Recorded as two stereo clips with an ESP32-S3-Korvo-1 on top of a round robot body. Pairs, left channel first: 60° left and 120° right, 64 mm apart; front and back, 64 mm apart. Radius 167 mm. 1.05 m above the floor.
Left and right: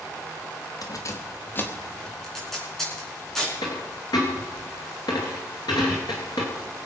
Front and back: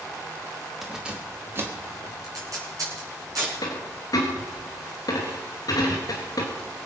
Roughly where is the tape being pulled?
Behind left.